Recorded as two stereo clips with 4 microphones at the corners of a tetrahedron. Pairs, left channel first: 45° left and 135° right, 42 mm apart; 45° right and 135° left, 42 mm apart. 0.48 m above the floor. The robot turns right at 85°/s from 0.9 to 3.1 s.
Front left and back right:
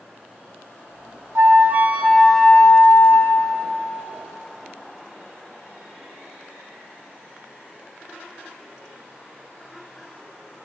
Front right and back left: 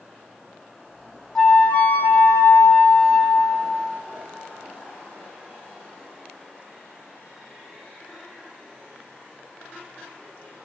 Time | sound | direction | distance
1.4 | a flute | 120° right | 0.6 m